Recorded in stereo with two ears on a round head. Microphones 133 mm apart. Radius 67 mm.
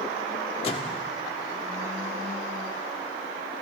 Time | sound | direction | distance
0.6 | a microwave | 35° left (ahead or behind) | 1.5 m